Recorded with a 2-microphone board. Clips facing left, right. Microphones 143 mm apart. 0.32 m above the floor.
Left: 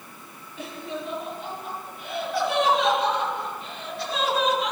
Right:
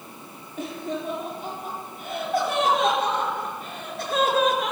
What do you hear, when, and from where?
0.6 s laughter: 45° right (ahead or behind), 9.5 m; by 4.7 s 50° right (ahead or behind), 4.5 m